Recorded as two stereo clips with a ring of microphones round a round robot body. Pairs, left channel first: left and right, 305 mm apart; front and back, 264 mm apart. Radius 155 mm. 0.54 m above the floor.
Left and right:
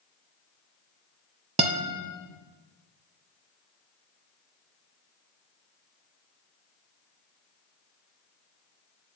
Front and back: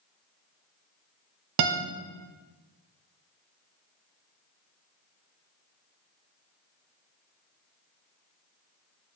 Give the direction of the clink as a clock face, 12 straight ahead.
I don't hear a clink.